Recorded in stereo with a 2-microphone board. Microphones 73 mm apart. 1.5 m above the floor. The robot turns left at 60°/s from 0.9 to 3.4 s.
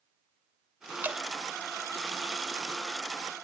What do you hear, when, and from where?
1.0 s dripping: 25° right (ahead or behind), 2 m; by 1.2 s 30° right (ahead or behind), 2 m